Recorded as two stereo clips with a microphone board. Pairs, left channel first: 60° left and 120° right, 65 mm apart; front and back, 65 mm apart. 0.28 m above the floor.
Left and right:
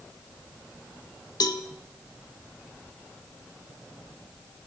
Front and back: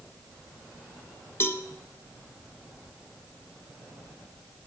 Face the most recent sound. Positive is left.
turn(degrees=50)